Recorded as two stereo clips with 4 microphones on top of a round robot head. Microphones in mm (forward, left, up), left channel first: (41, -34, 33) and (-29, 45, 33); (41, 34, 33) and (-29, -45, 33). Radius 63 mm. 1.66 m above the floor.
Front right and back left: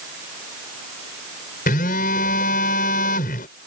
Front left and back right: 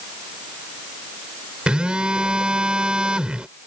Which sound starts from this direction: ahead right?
A phone buzzing, at 1.7 s.